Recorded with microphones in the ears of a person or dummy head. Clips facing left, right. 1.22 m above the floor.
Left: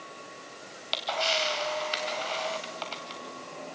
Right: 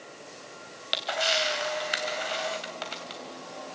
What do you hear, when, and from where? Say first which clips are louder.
0.7 s a camera shutter: even; 15° right (ahead or behind), 3 m